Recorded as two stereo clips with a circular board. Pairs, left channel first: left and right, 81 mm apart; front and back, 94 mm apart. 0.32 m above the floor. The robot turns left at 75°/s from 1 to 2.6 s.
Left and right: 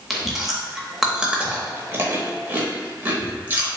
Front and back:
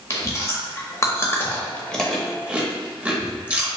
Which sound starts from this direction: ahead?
Chewing, at 0.1 s.